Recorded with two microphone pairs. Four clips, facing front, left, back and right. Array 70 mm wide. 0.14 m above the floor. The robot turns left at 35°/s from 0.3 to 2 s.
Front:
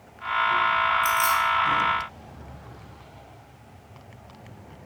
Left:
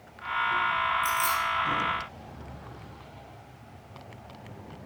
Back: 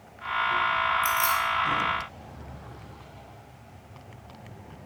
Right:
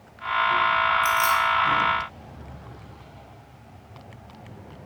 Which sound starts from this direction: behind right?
Keys jangling, at 1.0 s.